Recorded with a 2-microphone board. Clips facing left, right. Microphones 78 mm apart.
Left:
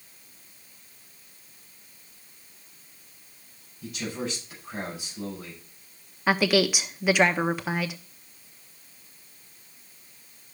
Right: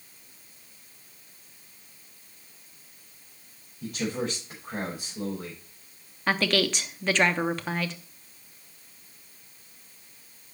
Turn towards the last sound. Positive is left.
turn(degrees=10)  # may be behind; listen again after turning